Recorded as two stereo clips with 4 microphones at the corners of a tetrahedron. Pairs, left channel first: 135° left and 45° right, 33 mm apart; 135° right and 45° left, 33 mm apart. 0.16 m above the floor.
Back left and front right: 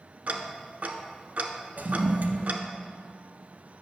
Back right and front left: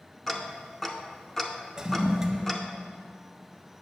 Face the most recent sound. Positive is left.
turn(degrees=-25)